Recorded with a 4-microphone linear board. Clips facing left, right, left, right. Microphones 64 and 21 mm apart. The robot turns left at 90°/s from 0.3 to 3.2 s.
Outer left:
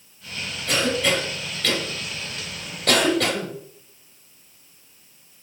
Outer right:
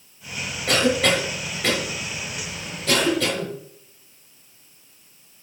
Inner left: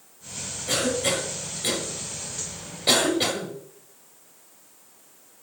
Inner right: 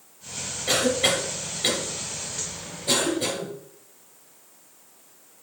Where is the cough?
55° right (ahead or behind), 3 m; by 3.5 s 70° left (ahead or behind), 3 m.